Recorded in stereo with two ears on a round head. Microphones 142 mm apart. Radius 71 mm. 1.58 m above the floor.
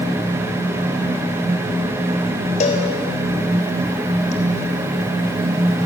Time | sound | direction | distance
2.6 | a cowbell | 50° left (ahead or behind) | 4 m